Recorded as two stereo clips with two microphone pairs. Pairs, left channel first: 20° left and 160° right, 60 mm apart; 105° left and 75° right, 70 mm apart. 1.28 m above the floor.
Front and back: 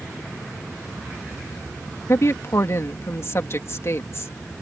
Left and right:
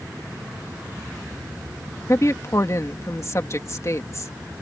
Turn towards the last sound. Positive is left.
turn(degrees=60)